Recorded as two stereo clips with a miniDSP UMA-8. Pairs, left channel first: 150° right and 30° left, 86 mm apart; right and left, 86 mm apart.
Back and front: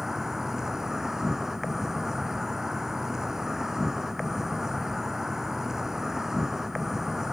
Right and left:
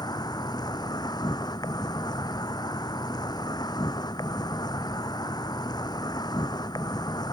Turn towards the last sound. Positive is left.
turn(degrees=-55)